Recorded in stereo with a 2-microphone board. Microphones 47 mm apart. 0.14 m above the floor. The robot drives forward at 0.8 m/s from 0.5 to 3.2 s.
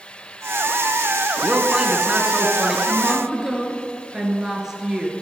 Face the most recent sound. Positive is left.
turn(degrees=-10)  # may be behind; listen again after turning